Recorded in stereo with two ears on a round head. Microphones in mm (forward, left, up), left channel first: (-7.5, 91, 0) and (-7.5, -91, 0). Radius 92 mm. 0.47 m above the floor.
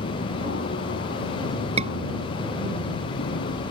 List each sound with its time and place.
0.0 s an aircraft: 55° left (ahead or behind); by 3.7 s 65° left (ahead or behind)
1.8 s a scream: 30° right (ahead or behind)